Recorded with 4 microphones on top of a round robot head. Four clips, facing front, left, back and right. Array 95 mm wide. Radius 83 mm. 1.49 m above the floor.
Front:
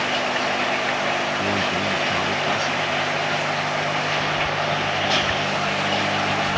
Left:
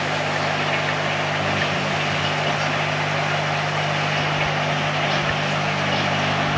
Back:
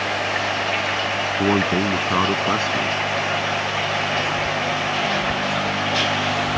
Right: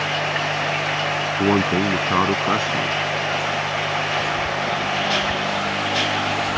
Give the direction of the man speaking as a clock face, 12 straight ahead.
4 o'clock.